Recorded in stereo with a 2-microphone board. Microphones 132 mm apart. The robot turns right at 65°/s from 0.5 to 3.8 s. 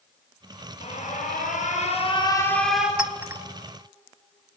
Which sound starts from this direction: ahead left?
An alarm, at 0.8 s.